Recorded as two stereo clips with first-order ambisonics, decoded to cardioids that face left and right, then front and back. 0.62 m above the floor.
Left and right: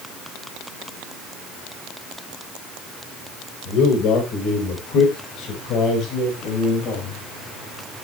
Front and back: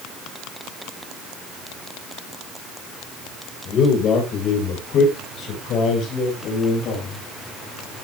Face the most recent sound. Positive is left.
turn(degrees=45)